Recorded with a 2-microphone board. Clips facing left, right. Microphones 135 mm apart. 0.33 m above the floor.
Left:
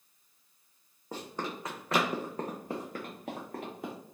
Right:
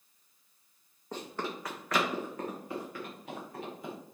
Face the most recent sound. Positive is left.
turn(degrees=60)  # may be behind; listen again after turning